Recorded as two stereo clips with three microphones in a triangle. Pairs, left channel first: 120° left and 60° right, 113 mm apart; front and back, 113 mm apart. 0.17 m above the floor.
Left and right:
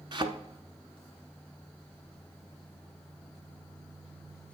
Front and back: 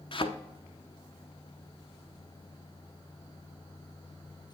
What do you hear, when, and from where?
0.1 s a thud: 25° right, 0.7 m